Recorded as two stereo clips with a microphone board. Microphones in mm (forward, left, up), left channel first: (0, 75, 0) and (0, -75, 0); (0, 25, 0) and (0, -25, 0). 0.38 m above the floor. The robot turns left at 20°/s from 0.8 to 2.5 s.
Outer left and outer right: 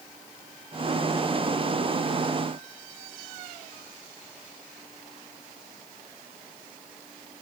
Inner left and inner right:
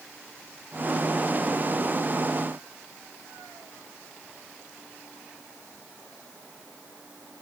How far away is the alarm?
I don't hear an alarm.